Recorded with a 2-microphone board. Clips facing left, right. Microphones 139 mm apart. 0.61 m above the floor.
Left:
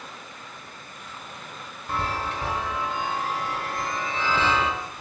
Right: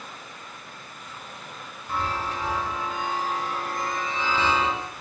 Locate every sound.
1.9 s a chime: 65° left (ahead or behind), 1.0 m